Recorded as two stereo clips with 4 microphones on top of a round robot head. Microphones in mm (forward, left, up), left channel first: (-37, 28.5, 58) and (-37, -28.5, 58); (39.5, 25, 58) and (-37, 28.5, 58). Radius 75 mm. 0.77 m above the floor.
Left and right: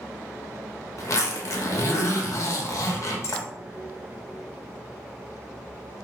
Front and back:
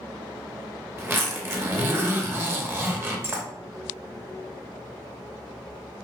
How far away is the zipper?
About 0.8 m.